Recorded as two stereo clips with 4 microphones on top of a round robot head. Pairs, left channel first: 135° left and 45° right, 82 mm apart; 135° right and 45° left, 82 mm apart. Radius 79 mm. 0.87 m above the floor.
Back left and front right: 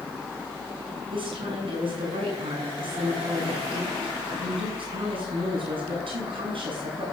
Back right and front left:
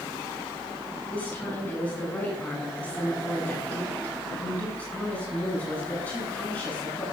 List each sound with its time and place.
1.1 s a woman speaking: 65° right, 7.5 m